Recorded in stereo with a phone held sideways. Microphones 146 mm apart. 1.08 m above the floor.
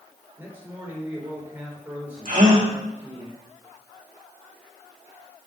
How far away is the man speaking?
About 3.5 m.